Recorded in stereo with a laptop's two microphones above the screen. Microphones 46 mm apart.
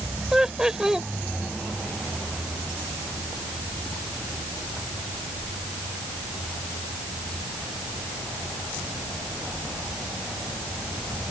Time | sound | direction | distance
0.3 | laughter | 10° right (ahead or behind) | ?